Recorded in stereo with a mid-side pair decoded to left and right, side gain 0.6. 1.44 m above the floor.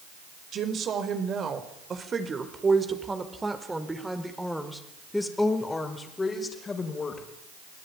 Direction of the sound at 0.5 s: 45° right.